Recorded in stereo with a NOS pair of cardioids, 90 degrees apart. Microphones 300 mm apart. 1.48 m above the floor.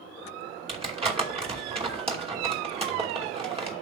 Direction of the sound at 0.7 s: 20° right.